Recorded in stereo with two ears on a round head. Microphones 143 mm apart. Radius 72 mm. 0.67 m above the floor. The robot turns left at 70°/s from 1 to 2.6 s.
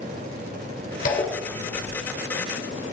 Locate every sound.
1.1 s a zipper: 55° left, 2 m; by 2.0 s 10° right, 2 m